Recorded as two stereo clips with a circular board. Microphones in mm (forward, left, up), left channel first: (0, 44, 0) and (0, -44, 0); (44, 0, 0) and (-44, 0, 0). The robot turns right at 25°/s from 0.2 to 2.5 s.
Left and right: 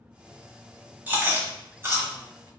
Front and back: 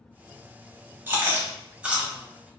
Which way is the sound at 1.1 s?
140° right.